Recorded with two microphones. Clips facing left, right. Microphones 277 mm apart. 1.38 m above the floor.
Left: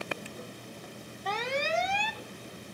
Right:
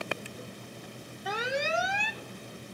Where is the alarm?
10° right (ahead or behind), 0.6 m.